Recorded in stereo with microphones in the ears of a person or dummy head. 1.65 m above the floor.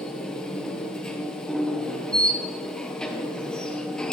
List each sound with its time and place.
0.0 s a machine running: centre (ahead or behind), 1.0 m